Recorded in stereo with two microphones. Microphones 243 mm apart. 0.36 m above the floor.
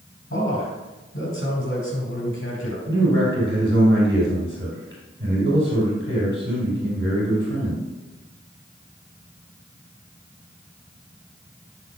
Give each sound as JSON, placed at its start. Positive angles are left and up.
{"t": 0.3, "sound": "a man speaking", "side_deg": 60, "distance_m": 4.0}
{"t": 2.9, "sound": "a man speaking", "side_deg": -50, "distance_m": 3.5}